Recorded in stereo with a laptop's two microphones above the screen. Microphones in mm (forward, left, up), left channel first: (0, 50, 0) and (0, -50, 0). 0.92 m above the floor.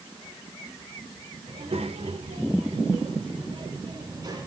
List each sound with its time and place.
1.5 s a child speaking: 80° right, 2.5 m; by 4.5 s 40° right (ahead or behind), 3 m